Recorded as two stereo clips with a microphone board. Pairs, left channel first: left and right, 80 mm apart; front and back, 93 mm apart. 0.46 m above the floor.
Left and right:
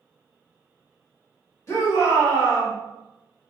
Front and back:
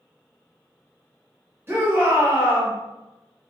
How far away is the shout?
About 1.2 m.